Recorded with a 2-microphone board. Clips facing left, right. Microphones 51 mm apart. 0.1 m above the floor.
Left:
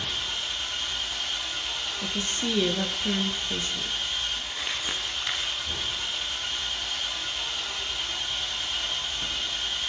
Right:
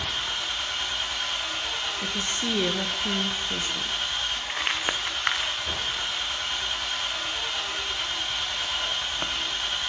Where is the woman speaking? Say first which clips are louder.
Left 2 dB; 5° right (ahead or behind), 1.4 m.